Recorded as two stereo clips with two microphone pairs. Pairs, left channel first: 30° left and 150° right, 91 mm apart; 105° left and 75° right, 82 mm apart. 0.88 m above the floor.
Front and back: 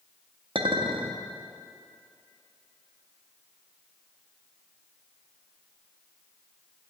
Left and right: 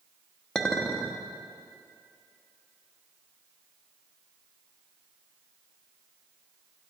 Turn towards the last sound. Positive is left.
turn(degrees=-170)